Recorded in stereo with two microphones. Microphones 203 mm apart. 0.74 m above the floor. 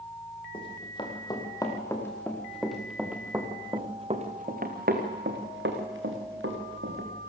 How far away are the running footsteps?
About 5 m.